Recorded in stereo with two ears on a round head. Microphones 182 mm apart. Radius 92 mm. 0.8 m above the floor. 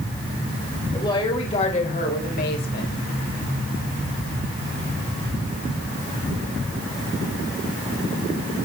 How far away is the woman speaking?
About 4 m.